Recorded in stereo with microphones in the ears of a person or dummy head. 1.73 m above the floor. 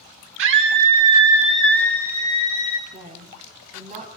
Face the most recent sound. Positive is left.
turn(degrees=-35)  # may be behind; listen again after turning